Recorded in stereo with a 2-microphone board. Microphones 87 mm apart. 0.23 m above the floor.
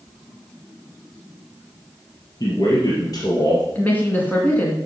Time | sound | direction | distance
2.4 | a man speaking | 50° left (ahead or behind) | 3.5 m
3.8 | a woman speaking | 20° left (ahead or behind) | 2.5 m